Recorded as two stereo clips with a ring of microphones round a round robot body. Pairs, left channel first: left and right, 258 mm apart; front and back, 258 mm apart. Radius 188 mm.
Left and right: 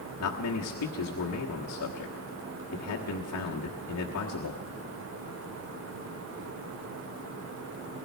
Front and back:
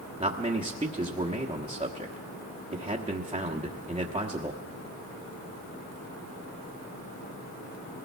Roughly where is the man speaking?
Left.